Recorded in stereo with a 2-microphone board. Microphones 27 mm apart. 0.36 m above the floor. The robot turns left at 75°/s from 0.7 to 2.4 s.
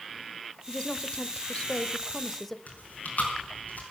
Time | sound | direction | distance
0.7 | a woman speaking | 135° left | 1.0 m
2.7 | chewing | 70° left (ahead or behind) | 5 m